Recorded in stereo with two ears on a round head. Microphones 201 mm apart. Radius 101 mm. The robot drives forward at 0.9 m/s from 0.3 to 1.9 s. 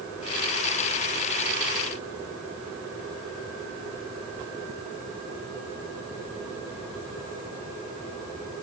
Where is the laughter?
I don't hear laughter.